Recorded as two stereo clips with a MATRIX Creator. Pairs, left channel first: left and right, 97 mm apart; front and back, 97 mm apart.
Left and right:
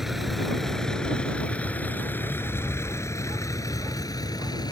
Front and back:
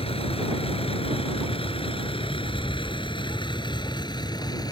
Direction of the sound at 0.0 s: Straight ahead.